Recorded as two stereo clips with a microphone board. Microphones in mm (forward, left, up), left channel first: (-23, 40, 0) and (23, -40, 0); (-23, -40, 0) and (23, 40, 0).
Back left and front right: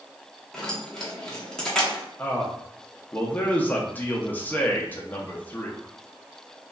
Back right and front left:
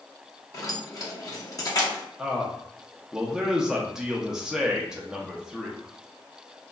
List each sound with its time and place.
0.5 s keys jangling: 160° right, 0.7 m
2.2 s a man speaking: 130° left, 0.5 m